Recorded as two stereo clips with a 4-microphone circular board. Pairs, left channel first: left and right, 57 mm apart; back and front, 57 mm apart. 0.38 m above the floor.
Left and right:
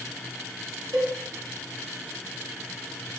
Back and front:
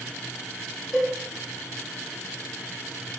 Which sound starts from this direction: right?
A cowbell, at 0.9 s.